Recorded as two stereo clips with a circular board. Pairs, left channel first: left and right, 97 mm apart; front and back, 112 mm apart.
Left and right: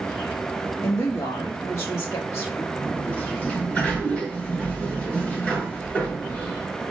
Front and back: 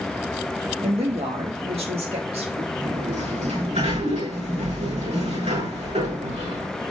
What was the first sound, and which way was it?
A woman speaking, 150° left.